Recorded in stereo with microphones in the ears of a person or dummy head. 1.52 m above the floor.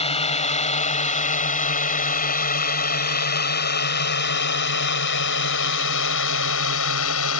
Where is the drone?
35° left (ahead or behind); by 7.4 s 75° left (ahead or behind).